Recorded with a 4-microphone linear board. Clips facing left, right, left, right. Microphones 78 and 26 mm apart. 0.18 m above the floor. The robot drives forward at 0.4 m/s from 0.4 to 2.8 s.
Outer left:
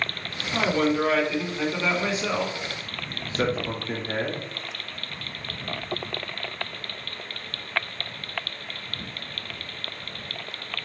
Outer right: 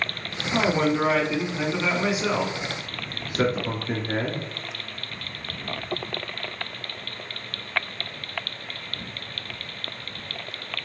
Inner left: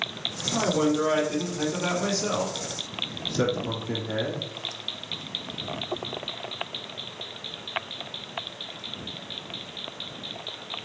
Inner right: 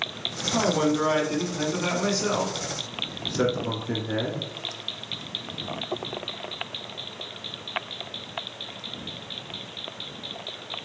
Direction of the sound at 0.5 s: 20° right (ahead or behind).